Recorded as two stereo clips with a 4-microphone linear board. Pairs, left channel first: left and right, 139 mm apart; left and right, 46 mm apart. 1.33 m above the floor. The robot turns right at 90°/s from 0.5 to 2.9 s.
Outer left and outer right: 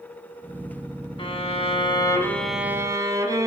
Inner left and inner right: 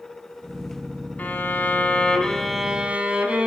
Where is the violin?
60° left, 0.8 m; by 3.5 s 145° right, 0.8 m.